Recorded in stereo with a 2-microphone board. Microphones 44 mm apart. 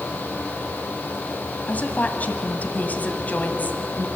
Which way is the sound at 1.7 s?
40° left (ahead or behind).